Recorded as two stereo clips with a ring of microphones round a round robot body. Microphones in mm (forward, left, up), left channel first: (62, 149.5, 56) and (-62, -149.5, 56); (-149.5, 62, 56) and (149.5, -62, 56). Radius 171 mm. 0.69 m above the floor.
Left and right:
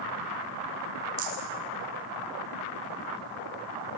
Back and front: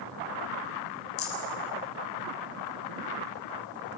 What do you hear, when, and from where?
1.2 s a rattle: 150° right, 7 m